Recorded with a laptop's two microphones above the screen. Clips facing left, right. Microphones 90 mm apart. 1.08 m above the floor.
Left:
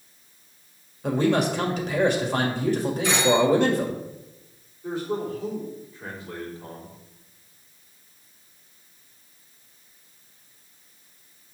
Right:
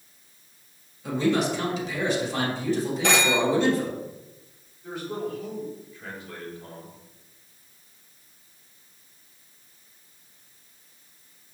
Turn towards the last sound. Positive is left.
turn(degrees=30)  # may be behind; listen again after turning